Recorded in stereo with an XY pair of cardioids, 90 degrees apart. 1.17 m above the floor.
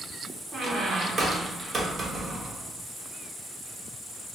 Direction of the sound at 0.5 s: 55° right.